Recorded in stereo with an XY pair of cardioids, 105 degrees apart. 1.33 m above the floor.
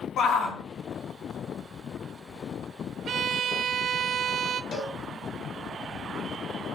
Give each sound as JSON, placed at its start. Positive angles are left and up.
{"t": 0.2, "sound": "a shout", "azimuth_deg": 60, "distance_m": 2.5}
{"t": 3.1, "sound": "a violin", "azimuth_deg": -60, "distance_m": 0.7}
{"t": 4.7, "sound": "a cowbell", "azimuth_deg": 65, "distance_m": 5.5}